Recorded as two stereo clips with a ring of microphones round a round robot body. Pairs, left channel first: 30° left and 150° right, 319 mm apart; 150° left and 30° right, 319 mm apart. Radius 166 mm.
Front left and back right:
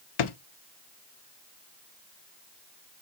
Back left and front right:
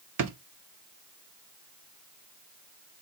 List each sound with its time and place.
0.2 s a drawer: 15° left, 0.7 m